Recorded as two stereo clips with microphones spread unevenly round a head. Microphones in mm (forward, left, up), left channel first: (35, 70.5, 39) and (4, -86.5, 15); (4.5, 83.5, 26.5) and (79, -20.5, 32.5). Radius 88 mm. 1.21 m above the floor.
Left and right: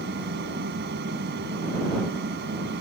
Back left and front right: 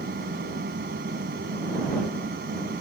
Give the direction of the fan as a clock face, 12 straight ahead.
3 o'clock.